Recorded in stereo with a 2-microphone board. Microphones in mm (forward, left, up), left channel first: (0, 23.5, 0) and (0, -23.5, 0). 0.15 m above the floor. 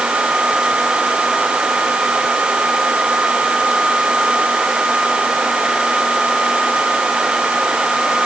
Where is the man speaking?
I don't hear a man speaking.